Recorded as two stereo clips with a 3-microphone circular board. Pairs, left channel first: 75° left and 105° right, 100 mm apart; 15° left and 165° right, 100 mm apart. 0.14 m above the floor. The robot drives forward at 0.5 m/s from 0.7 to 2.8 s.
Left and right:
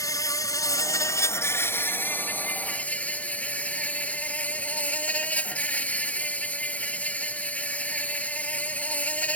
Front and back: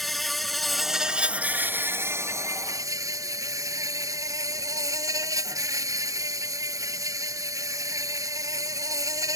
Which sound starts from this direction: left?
An insect, at 0.0 s.